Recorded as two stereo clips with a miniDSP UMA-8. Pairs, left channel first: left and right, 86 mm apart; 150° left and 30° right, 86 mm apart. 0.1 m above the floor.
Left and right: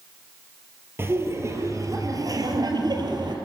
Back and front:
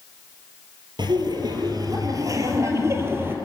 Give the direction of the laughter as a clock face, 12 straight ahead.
1 o'clock.